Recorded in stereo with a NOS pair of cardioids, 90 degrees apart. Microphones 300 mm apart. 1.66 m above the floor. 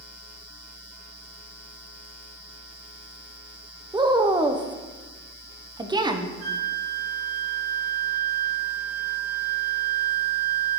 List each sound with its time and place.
3.9 s a woman speaking: 15° right, 1.0 m
6.4 s a flute: 65° right, 4 m